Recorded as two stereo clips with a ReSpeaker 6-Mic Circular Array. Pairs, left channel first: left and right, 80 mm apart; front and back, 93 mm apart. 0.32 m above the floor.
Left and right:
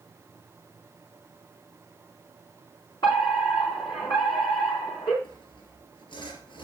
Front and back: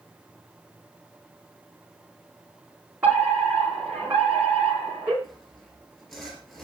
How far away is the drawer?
I don't hear a drawer.